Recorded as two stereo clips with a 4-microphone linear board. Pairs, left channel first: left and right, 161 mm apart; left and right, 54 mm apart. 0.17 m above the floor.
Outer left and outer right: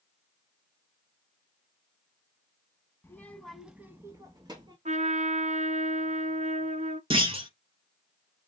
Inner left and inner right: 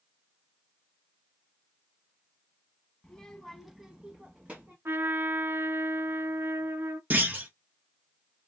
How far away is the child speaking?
About 0.7 m.